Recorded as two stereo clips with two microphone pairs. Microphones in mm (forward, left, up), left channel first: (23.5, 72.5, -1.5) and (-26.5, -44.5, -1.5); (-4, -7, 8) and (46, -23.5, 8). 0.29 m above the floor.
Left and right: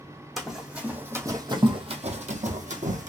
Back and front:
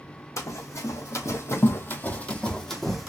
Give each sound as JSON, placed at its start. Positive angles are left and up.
{"t": 0.4, "sound": "running footsteps", "azimuth_deg": 155, "distance_m": 1.1}